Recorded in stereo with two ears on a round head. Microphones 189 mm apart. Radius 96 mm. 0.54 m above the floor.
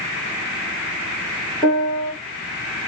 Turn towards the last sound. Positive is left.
turn(degrees=5)  # may be behind; listen again after turning